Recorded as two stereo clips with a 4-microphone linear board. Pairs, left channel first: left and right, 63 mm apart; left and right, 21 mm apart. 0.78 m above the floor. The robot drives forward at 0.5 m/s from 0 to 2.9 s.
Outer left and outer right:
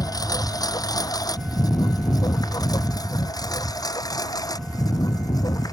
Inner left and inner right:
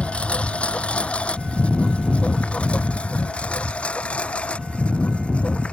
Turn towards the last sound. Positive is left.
turn(degrees=70)  # may be behind; listen again after turning